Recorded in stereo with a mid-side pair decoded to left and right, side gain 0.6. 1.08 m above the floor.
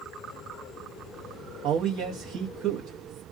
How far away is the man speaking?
About 1.0 m.